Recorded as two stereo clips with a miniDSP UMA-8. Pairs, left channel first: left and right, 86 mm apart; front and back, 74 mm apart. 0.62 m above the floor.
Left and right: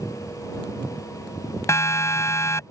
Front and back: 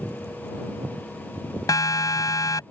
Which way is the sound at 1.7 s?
35° left.